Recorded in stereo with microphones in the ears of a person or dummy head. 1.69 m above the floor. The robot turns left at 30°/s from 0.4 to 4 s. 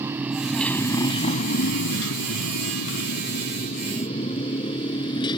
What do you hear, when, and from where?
0.0 s a motorcycle: 15° right (ahead or behind); by 5.4 s 25° left (ahead or behind)